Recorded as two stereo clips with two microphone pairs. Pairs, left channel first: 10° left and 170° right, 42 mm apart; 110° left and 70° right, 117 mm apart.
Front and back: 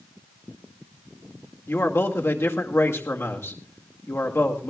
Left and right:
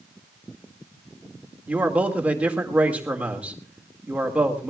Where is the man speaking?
10° left, 2.5 m.